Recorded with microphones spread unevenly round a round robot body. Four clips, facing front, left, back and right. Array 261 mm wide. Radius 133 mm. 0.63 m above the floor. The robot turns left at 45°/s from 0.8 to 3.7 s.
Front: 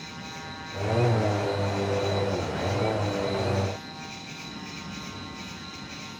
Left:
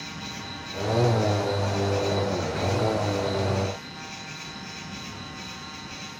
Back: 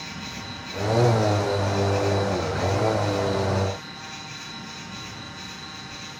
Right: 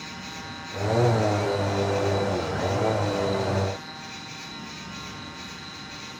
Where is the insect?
145° left, 5 m; by 6.2 s 15° left, 5 m.